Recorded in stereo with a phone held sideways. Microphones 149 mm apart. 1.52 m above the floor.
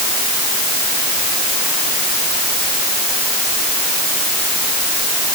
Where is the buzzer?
No buzzer in this recording.